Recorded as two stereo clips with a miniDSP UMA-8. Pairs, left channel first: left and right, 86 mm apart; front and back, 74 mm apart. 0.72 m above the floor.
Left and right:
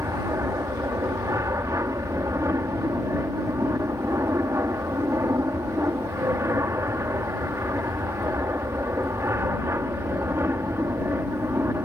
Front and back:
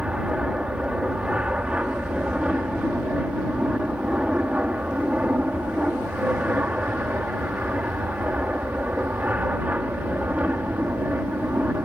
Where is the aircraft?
110° right; by 11.9 s 130° right.